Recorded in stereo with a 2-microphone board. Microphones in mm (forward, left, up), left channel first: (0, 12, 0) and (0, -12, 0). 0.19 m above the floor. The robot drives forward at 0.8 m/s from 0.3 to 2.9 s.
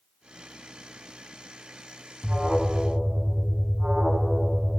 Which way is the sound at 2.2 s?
30° right (ahead or behind).